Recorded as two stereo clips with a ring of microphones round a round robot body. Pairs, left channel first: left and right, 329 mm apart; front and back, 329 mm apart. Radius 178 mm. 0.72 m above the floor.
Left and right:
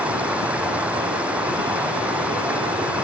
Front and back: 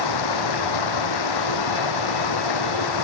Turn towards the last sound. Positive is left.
turn(degrees=-5)